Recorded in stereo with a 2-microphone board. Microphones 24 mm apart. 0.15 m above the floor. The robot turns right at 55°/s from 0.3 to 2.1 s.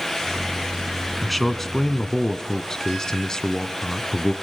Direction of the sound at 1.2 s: 5° left.